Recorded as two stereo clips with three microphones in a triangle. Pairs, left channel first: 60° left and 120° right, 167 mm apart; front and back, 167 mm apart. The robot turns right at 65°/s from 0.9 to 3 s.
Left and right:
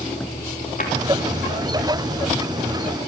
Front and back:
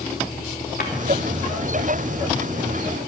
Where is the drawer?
25° left, 5 m.